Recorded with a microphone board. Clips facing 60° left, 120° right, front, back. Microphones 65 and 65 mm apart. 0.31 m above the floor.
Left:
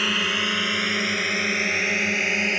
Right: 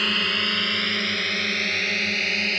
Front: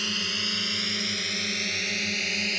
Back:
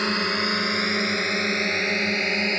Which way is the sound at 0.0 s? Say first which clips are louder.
Left 1 dB, back 9 dB; 145° left.